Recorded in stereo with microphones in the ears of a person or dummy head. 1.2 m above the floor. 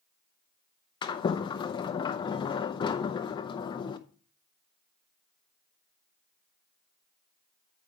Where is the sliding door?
30° left (ahead or behind), 0.6 m.